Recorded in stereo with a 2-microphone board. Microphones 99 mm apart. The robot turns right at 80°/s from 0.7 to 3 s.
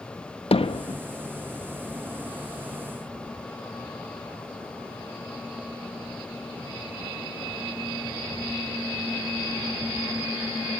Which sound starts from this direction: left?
Hammering, at 0.5 s.